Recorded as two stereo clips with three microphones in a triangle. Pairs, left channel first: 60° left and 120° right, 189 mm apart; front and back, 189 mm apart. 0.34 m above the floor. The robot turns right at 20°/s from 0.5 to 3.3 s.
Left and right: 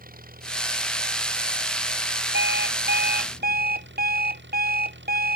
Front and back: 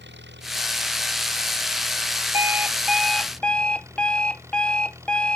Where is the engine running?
160° right; by 5.4 s 105° right.